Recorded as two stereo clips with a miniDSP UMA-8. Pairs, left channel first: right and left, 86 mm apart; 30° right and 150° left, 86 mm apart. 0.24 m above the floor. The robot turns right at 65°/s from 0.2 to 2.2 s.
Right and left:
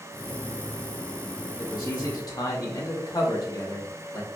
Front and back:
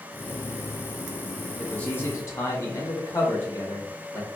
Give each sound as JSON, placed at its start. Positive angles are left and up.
{"t": 1.6, "sound": "a man speaking", "azimuth_deg": -115, "distance_m": 1.6}